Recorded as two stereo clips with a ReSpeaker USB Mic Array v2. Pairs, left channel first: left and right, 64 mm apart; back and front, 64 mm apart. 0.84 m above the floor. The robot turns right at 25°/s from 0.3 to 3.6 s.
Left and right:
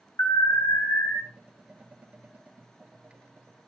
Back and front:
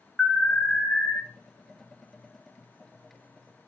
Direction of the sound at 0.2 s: 100° left.